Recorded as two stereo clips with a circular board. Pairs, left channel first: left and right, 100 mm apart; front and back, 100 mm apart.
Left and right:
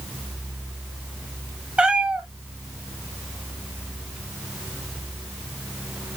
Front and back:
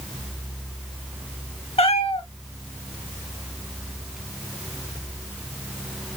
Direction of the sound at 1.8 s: 10° right.